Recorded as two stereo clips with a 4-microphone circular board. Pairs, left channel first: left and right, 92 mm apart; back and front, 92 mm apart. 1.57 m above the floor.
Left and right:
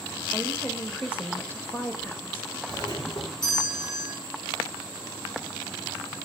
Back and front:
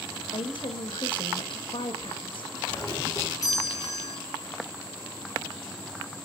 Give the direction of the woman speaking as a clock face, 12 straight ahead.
7 o'clock.